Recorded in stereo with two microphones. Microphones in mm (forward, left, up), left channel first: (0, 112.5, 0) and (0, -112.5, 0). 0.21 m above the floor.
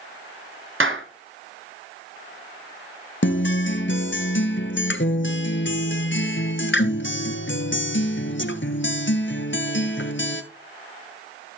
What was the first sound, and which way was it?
A clap, 65° right (ahead or behind).